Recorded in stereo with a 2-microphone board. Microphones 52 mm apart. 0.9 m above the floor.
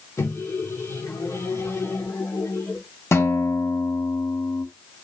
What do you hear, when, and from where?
0.2 s a microwave: 70° left (ahead or behind), 2 m
3.1 s a guitar: 60° left (ahead or behind), 2.5 m